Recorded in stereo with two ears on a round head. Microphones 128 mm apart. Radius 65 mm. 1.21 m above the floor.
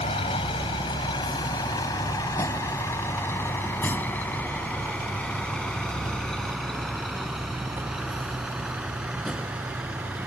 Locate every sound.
0.0 s a vehicle: 40° left (ahead or behind); by 10.3 s 5° right (ahead or behind)